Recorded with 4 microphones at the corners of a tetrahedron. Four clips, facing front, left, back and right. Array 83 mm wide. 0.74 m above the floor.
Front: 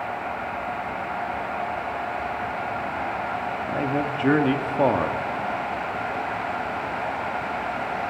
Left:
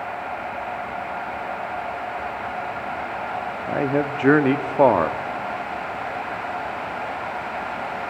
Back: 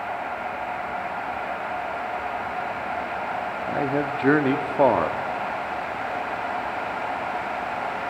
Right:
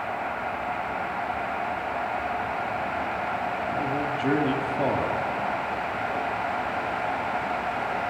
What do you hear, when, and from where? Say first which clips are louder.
3.7 s a man speaking: left 9 dB, back 2 dB; 110° left, 1.1 m